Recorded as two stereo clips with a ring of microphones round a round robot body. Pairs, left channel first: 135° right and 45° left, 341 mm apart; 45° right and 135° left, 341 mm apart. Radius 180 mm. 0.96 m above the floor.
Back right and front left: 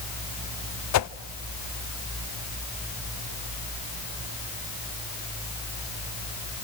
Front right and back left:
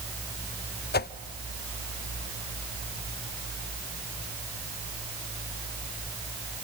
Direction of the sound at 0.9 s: 105° right.